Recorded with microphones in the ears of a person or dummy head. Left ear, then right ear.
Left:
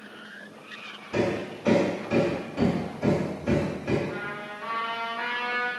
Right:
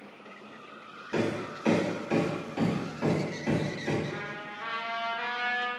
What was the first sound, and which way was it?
Hammering, 40° right (ahead or behind).